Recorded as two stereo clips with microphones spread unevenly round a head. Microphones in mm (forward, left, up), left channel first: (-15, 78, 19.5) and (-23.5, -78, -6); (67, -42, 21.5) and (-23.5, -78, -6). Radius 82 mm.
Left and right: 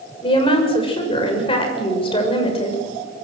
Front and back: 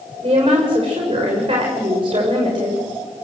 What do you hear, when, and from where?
0.2 s a woman speaking: 145° left, 6.5 m